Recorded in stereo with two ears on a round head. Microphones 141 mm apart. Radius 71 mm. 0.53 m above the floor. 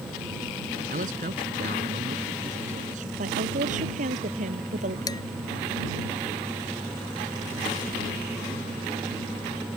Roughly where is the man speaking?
Right.